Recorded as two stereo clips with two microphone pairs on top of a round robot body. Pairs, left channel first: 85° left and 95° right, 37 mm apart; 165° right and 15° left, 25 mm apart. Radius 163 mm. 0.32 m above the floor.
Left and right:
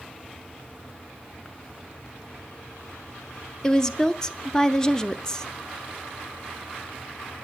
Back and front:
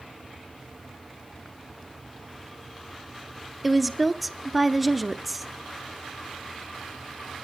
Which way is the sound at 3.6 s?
10° left.